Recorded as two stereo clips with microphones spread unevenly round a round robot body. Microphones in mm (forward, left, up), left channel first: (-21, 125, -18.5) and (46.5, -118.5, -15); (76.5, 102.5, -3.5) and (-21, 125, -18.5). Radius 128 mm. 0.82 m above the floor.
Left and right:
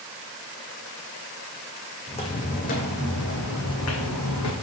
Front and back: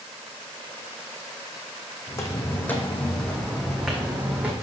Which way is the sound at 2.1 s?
35° left.